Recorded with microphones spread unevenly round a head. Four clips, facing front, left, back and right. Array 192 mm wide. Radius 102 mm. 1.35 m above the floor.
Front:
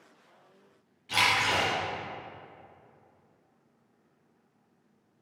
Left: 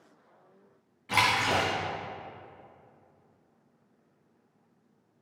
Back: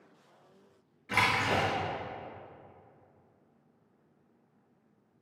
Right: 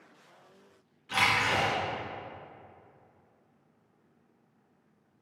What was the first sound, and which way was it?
A splash, 105° left.